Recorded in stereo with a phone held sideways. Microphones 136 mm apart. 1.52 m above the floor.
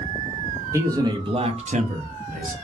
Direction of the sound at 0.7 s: 20° right (ahead or behind).